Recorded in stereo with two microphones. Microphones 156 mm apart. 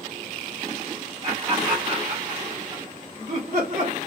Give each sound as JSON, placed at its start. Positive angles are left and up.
{"t": 1.2, "sound": "laughter", "side_deg": -30, "distance_m": 1.9}